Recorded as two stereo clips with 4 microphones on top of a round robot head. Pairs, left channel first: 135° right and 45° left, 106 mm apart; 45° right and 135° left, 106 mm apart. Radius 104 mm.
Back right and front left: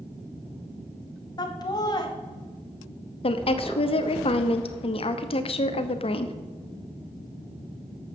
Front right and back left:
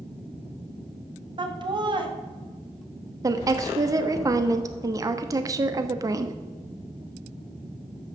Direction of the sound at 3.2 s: 165° right.